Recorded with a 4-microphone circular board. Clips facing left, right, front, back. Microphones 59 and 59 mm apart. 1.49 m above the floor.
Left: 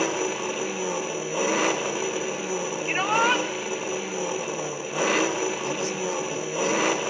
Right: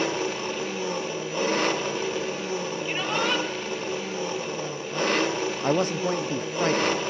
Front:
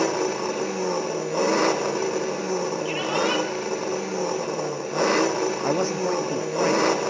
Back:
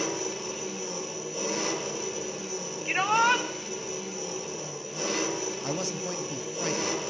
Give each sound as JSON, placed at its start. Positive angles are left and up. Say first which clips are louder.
{"t": 0.0, "sound": "an engine running", "louder": "left 1 dB, front 9 dB", "azimuth_deg": 10, "distance_m": 1.6}
{"t": 2.9, "sound": "a shout", "louder": "left 5 dB, back 5 dB", "azimuth_deg": 140, "distance_m": 2.5}
{"t": 5.6, "sound": "a man speaking", "louder": "right 4 dB, front 9 dB", "azimuth_deg": -55, "distance_m": 0.9}